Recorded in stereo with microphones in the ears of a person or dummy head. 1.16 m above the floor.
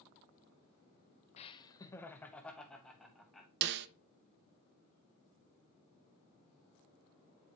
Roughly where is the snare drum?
Right.